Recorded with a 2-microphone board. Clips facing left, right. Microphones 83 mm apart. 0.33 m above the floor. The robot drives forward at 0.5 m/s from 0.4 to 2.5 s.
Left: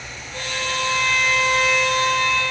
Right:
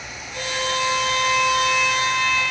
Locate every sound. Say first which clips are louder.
0.3 s a violin: right 2 dB; 40° left (ahead or behind), 9.5 m; by 2.4 s 45° left (ahead or behind), 9 m